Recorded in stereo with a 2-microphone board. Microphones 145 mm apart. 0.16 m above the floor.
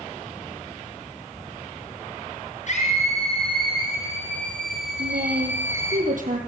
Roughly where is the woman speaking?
Right.